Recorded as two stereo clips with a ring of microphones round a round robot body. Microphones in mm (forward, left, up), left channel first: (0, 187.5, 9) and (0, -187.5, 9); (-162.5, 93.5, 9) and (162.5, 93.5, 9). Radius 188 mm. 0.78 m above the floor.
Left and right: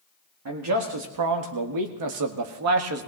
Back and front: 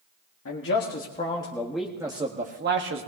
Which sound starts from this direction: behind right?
A man speaking, at 0.5 s.